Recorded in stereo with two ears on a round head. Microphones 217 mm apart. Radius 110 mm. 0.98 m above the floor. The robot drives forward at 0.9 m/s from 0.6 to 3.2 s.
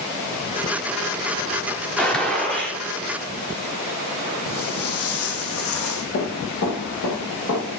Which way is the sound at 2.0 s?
5° left (ahead or behind).